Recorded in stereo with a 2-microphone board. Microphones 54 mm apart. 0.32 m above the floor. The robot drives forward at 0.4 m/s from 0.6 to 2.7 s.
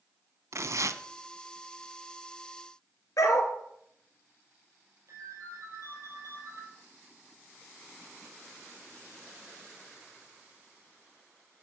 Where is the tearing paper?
65° right (ahead or behind), 0.6 m; by 1.0 s 80° right, 0.6 m.